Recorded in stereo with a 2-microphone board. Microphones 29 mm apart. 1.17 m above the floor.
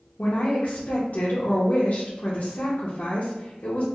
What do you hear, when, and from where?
0.2 s a woman speaking: 60° left (ahead or behind), 0.6 m